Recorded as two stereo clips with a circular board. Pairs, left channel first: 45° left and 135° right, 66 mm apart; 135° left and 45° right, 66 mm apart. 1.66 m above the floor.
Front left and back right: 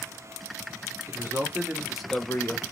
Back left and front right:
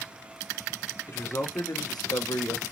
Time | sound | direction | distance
1.1 | a man speaking | straight behind | 1.1 m